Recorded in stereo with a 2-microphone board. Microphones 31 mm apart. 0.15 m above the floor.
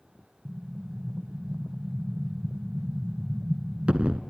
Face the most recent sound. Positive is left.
turn(degrees=-45)  # may be behind; listen again after turning